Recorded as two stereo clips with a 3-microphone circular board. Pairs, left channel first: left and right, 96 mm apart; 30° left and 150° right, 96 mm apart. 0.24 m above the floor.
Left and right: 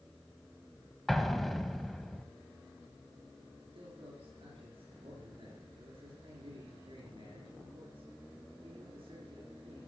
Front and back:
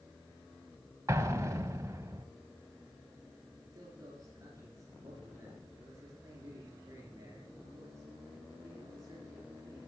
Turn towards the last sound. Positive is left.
turn(degrees=-95)